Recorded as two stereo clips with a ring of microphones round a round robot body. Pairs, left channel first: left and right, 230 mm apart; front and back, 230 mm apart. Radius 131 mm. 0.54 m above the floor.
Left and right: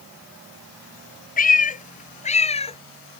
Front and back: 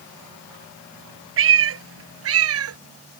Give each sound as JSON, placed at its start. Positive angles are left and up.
{"t": 1.4, "sound": "a cat meowing", "azimuth_deg": 145}